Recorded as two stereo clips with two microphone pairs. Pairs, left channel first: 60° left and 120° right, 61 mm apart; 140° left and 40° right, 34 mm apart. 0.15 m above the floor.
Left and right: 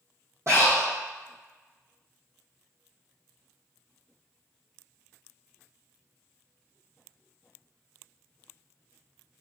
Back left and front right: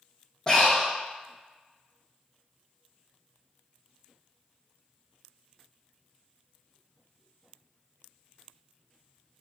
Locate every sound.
0.5 s breathing: 150° right, 2.0 m